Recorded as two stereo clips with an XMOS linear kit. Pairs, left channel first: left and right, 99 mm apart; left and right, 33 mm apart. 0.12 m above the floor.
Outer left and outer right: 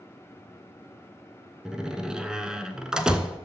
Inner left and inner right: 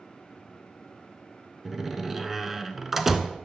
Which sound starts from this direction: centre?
A door slam, at 1.6 s.